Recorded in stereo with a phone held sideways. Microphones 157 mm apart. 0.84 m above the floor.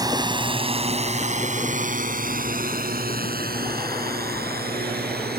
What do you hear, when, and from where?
0.0 s a drone: 25° right (ahead or behind); by 5.4 s 85° right